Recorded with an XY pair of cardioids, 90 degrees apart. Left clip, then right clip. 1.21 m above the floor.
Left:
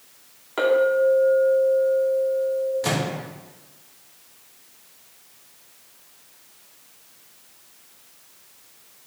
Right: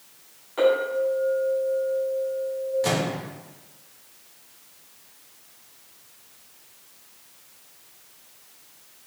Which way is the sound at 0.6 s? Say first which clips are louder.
Left 3 dB; 60° left.